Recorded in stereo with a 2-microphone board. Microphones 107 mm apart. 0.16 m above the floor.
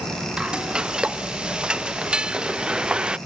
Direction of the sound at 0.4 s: 10° right (ahead or behind).